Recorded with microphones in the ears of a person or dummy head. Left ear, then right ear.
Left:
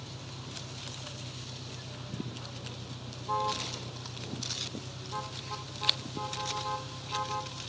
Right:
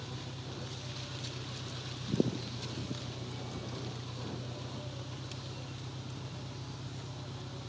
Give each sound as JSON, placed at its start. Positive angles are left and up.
{"t": 0.0, "sound": "an engine running", "side_deg": -30}